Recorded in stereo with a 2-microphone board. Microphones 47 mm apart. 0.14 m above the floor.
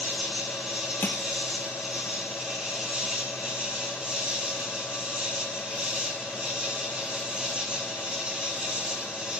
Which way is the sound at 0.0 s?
25° right (ahead or behind).